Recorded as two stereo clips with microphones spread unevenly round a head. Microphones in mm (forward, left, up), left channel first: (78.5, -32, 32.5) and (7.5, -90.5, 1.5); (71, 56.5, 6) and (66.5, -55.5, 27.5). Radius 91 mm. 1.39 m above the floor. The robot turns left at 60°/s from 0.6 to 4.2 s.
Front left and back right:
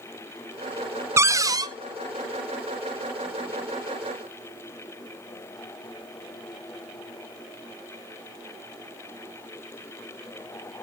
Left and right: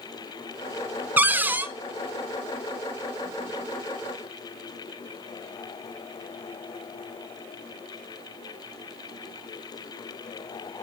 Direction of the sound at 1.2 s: 75° right.